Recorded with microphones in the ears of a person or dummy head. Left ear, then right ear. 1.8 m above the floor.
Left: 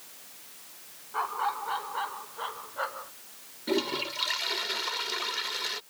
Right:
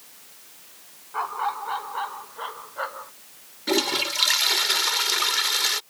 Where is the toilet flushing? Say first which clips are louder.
Right 7 dB; 45° right (ahead or behind).